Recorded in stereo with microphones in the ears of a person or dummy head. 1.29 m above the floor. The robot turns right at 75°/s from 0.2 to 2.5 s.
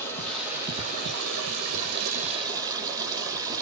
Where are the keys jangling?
No keys jangling in this recording.